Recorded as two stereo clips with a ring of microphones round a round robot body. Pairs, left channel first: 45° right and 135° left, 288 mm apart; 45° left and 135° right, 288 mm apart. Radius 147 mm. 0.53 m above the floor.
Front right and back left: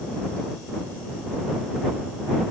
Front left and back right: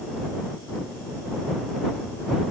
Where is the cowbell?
No cowbell in this recording.